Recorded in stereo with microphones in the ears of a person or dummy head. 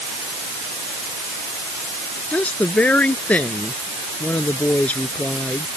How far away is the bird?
I don't hear a bird.